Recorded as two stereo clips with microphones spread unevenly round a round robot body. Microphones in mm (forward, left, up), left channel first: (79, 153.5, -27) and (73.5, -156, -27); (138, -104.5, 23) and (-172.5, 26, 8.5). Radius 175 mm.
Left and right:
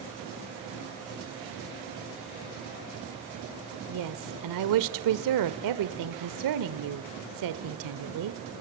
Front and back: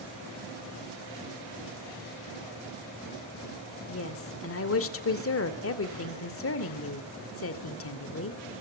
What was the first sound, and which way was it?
A woman speaking, 75° right.